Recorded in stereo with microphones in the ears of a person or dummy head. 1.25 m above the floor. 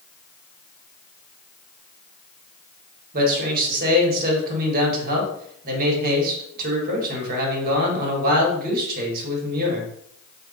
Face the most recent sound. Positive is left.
turn(degrees=-50)  # may be behind; listen again after turning